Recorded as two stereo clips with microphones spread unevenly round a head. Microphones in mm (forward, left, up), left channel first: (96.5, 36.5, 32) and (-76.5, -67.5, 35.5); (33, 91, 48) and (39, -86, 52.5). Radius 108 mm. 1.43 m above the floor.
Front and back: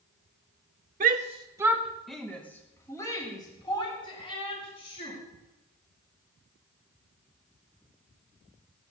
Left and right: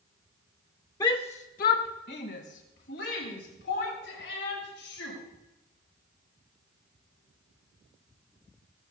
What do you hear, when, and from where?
1.0 s a shout: 165° left, 1.3 m; by 5.2 s 90° left, 5.5 m